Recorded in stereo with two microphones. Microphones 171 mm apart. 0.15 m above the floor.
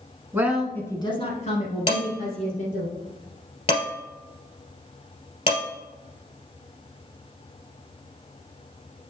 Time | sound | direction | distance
0.3 | a woman speaking | 15° right (ahead or behind) | 1.3 m
1.9 | dishes clattering | 35° left (ahead or behind) | 2.5 m